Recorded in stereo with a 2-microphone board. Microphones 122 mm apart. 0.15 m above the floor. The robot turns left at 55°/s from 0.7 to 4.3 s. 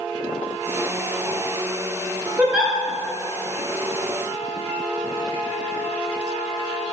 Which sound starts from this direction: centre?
A giggle, at 2.4 s.